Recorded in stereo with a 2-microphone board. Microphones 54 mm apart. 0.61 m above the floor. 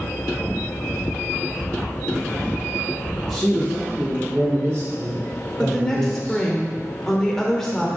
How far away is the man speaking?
About 1.1 m.